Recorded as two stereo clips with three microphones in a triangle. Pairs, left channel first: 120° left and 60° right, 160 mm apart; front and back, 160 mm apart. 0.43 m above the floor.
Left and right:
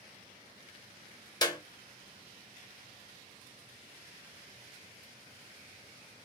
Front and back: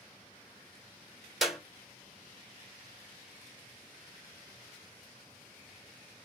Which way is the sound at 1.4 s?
90° left.